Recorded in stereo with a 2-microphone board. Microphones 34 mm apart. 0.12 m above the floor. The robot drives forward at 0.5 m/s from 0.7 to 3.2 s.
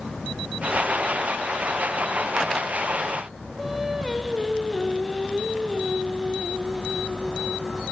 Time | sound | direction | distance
3.6 | singing | 10° right (ahead or behind) | 5 m